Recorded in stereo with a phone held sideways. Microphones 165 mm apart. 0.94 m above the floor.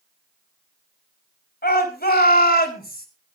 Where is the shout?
75° left (ahead or behind), 4.5 m; by 3.1 s 70° left (ahead or behind), 4 m.